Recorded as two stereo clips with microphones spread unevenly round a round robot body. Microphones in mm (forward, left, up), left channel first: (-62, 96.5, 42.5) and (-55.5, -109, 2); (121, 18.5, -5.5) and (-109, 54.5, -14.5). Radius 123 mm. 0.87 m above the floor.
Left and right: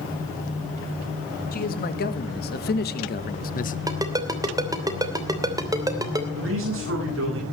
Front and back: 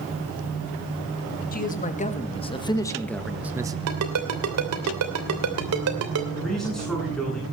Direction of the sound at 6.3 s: 95° right.